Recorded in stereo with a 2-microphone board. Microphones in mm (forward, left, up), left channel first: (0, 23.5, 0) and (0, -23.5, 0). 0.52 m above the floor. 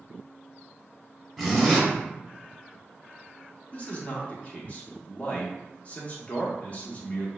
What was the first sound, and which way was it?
A zipper, 5° left (ahead or behind).